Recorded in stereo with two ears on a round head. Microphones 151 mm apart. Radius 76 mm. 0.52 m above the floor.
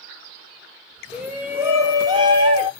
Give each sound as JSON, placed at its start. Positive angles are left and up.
{"t": 1.1, "sound": "a shout", "side_deg": -10, "distance_m": 1.3}